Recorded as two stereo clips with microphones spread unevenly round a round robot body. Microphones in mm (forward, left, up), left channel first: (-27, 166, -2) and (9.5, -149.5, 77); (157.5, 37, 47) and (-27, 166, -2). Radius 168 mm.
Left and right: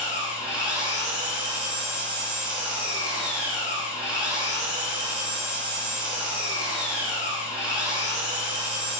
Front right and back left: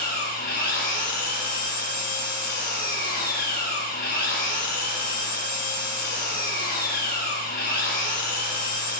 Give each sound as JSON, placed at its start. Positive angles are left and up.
{"t": 0.0, "sound": "an engine running", "azimuth_deg": 5, "distance_m": 7.5}